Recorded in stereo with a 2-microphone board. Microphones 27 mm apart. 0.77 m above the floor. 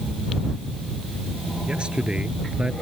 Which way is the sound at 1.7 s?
35° right (ahead or behind).